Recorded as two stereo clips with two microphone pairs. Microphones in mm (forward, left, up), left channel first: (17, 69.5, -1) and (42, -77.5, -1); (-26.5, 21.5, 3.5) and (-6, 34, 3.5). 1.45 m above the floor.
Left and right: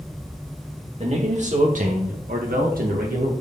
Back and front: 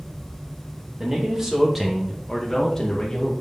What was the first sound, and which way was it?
A man speaking, 40° right.